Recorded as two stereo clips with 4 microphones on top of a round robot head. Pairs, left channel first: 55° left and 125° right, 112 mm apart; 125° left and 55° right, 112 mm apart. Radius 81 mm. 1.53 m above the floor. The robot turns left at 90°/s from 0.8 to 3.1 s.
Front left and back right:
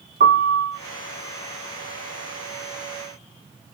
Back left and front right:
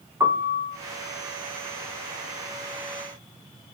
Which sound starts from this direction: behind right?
A piano, at 0.2 s.